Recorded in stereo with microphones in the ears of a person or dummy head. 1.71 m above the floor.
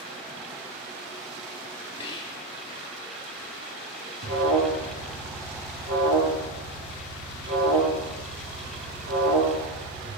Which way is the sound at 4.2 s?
85° right.